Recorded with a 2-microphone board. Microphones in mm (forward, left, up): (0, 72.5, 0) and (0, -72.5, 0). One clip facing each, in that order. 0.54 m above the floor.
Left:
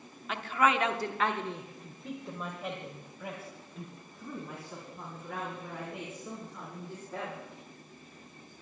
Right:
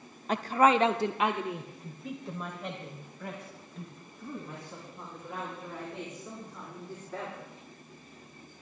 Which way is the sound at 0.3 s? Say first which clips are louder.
Right 5 dB; 40° right (ahead or behind).